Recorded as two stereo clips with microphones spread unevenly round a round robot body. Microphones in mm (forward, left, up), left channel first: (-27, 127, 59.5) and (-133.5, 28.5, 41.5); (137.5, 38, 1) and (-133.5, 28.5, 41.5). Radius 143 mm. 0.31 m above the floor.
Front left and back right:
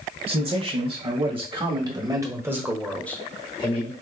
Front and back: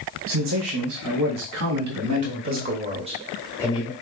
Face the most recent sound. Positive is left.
turn(degrees=30)